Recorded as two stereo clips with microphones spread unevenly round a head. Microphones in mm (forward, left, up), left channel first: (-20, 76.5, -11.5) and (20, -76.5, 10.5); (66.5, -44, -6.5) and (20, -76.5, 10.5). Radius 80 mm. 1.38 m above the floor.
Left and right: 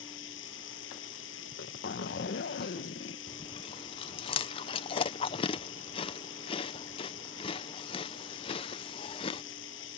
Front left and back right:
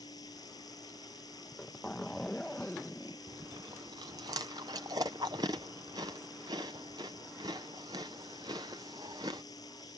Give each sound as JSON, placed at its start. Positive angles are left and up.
{"t": 0.0, "sound": "running water", "azimuth_deg": 95}
{"t": 1.4, "sound": "a zipper", "azimuth_deg": 125}
{"t": 3.3, "sound": "chewing", "azimuth_deg": 160}